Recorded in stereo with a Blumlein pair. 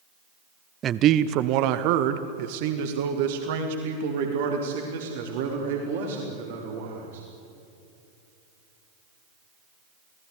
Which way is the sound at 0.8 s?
25° right.